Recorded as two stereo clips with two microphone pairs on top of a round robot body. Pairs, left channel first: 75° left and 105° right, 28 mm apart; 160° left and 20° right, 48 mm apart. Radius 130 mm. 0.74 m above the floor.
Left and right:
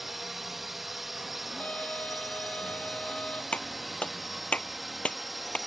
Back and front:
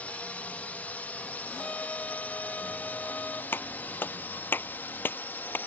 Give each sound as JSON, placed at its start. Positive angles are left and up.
{"t": 0.0, "sound": "a drone", "azimuth_deg": 180}
{"t": 1.6, "sound": "a violin", "azimuth_deg": 95}
{"t": 3.5, "sound": "a clap", "azimuth_deg": 115}